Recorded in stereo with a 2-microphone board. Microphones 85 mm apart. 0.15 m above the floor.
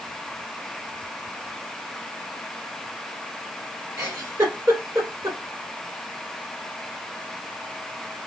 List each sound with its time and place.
4.0 s a giggle: 35° right (ahead or behind), 1.7 m